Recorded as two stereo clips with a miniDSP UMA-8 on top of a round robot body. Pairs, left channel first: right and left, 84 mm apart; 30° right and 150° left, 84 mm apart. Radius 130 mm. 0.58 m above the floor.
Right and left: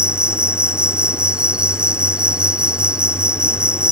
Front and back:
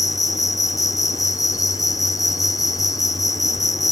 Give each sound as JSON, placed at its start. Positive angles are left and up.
{"t": 0.0, "sound": "an insect", "azimuth_deg": 10}